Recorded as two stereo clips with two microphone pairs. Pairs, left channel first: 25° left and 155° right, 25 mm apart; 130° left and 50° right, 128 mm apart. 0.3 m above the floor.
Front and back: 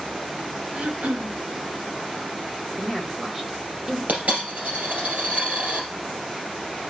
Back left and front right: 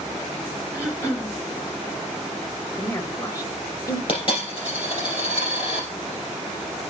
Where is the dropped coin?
175° left, 3.5 m.